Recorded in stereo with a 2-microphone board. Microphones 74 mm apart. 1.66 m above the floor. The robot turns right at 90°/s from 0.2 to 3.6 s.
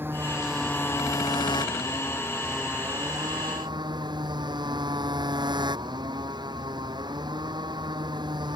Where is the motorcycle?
30° right; by 8.6 s 85° right.